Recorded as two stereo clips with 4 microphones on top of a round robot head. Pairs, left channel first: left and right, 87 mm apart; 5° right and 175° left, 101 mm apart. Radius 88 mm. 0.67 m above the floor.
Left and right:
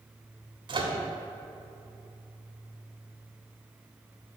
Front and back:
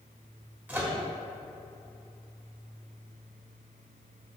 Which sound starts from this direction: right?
A microwave, at 0.7 s.